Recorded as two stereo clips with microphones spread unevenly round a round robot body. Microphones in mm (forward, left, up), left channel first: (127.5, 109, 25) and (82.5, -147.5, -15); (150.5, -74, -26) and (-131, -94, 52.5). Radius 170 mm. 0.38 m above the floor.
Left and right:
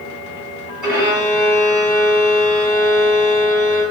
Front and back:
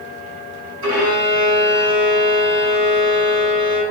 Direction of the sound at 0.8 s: 175° right.